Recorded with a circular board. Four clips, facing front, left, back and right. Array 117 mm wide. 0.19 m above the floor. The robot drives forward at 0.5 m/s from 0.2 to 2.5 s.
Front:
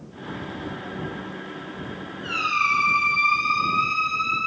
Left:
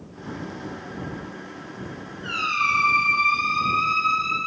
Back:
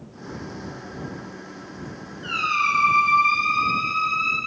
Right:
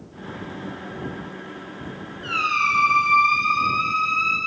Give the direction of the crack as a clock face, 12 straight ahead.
I don't hear a crack.